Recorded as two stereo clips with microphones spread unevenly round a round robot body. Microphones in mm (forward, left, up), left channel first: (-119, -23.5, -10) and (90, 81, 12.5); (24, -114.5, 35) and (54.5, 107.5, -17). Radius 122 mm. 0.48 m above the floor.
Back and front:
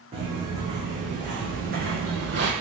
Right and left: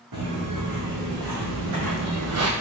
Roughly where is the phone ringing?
I don't hear a phone ringing.